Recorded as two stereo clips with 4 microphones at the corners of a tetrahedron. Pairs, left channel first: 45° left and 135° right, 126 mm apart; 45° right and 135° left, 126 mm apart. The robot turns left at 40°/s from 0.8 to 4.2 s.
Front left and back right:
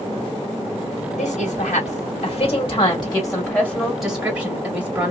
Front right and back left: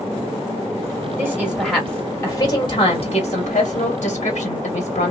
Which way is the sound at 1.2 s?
65° left.